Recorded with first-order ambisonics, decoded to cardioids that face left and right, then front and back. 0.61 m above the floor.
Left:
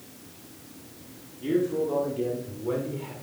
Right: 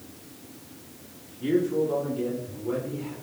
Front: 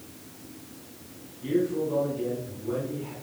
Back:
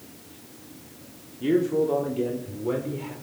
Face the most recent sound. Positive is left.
turn(degrees=155)